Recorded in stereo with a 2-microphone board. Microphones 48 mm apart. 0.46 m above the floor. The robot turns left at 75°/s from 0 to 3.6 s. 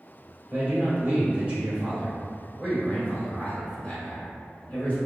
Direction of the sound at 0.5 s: 55° right.